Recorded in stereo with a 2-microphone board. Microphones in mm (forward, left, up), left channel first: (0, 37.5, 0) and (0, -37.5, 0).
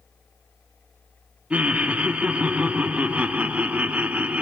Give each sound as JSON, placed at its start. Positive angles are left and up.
{"t": 1.5, "sound": "laughter", "side_deg": -20, "distance_m": 0.7}